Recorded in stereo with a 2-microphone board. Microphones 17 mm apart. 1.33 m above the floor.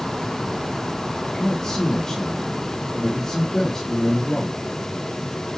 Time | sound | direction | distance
1.2 | a man speaking | 40° left (ahead or behind) | 2.5 m